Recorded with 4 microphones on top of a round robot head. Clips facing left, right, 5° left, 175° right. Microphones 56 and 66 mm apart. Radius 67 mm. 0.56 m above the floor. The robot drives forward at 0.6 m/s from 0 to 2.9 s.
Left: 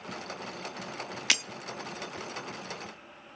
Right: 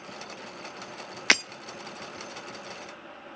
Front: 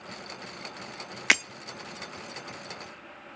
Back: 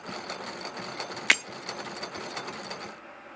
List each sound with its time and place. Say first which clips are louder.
1.3 s breaking glass: right 7 dB, front 1 dB; 80° right, 0.5 m; by 1.4 s 90° right, 0.5 m